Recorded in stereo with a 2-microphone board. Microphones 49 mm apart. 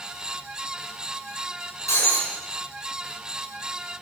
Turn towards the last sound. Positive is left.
turn(degrees=90)